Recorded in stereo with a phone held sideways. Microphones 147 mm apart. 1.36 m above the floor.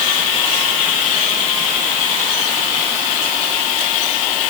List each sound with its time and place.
Only background noise.